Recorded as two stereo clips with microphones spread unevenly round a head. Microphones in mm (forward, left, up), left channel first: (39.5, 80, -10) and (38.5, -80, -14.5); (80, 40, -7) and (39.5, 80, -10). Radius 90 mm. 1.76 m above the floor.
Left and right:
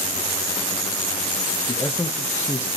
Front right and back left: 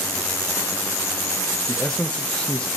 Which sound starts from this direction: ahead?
A man speaking, at 1.7 s.